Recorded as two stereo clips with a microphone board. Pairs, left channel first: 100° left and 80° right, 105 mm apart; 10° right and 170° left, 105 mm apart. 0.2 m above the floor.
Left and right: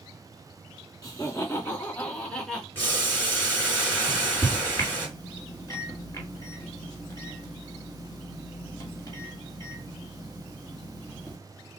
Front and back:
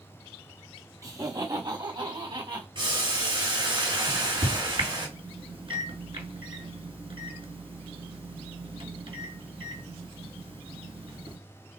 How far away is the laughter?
About 1.6 m.